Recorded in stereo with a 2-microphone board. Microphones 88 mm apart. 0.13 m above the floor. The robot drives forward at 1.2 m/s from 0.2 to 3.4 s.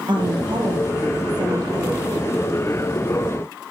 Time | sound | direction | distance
0.1 | a woman speaking | 65° right (ahead or behind) | 3 m